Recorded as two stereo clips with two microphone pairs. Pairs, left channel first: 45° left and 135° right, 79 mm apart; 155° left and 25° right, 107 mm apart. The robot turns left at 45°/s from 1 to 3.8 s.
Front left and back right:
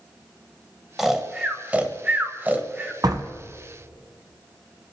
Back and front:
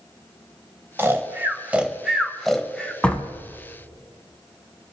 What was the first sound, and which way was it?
Snoring, 55° right.